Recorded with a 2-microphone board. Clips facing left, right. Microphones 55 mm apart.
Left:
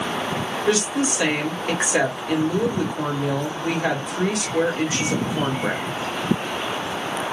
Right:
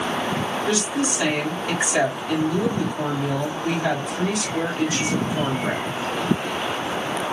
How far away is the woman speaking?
About 1.5 m.